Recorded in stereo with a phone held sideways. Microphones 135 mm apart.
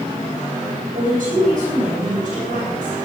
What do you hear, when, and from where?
0.9 s a woman speaking: 65° right (ahead or behind), 8 m